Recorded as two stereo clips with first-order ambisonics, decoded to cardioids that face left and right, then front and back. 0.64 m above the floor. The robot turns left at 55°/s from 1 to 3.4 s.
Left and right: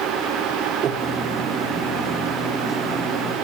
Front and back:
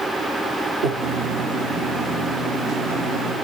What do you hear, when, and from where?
0.8 s breathing: 145° right, 2 m; by 1.1 s 155° right, 2 m